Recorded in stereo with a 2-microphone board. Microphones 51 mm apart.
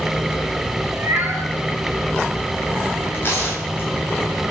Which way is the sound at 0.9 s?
35° right (ahead or behind).